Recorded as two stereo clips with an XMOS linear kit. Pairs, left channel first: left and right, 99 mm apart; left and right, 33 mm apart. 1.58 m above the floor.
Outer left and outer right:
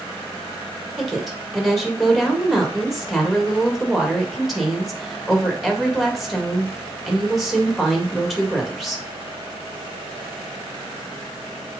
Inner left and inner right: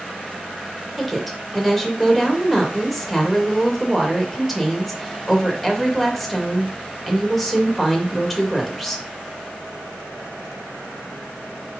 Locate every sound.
1.0 s a woman speaking: centre (ahead or behind), 2.5 m